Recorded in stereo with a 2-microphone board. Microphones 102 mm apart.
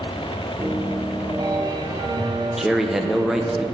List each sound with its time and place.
0.6 s a piano: 45° right (ahead or behind), 1.5 m
2.6 s a man speaking: 5° right (ahead or behind), 0.9 m